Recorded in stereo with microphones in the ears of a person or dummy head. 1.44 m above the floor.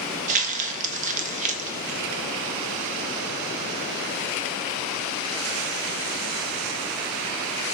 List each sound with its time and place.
0.3 s crumpling: 40° right (ahead or behind), 1.1 m